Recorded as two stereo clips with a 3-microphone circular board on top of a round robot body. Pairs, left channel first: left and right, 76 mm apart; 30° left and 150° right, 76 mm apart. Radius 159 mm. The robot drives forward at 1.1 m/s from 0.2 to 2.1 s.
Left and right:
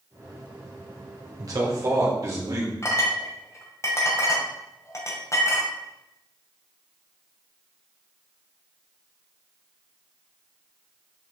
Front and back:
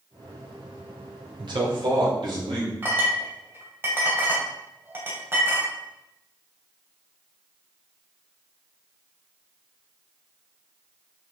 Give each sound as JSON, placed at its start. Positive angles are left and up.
{"t": 1.4, "sound": "a man speaking", "azimuth_deg": -130, "distance_m": 4.0}
{"t": 2.8, "sound": "a clink", "azimuth_deg": 145, "distance_m": 2.5}